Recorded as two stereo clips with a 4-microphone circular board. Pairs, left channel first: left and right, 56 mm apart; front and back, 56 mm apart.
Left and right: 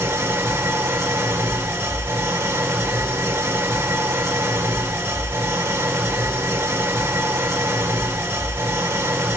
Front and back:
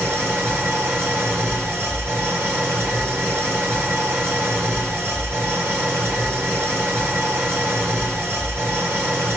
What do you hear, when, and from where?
0.0 s an engine running: 135° right, 2.5 m